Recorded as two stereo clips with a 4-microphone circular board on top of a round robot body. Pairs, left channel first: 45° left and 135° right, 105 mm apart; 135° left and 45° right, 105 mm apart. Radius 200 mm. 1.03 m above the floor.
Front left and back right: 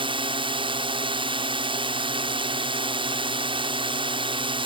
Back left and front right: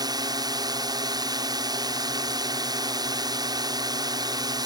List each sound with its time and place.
0.0 s a drone: 95° right